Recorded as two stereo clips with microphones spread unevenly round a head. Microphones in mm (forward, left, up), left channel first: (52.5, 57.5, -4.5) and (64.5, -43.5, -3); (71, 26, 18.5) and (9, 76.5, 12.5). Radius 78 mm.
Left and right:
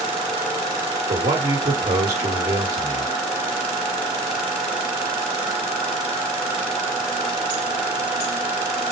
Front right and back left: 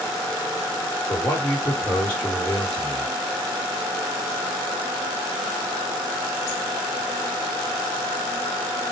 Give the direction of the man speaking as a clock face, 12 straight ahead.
4 o'clock.